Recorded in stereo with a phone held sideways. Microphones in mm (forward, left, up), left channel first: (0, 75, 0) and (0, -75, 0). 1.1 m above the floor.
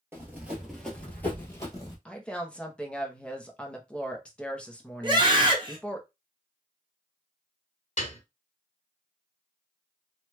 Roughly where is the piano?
Left.